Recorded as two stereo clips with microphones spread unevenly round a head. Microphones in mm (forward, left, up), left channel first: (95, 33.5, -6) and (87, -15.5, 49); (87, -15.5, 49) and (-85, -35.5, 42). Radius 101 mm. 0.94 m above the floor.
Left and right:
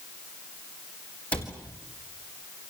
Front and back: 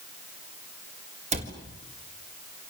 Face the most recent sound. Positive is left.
turn(degrees=135)